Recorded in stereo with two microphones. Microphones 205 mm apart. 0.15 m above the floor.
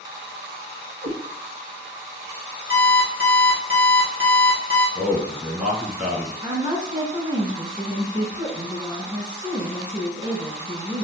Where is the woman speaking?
20° right (ahead or behind), 1.1 m.